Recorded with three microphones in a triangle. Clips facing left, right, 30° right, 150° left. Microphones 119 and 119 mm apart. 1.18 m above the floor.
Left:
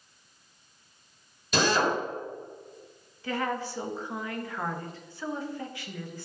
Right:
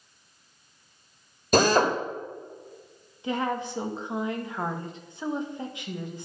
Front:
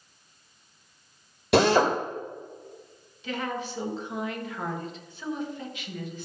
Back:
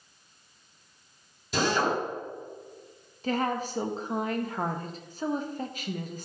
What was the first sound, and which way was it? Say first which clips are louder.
A drill: right 5 dB, front 6 dB; 45° right.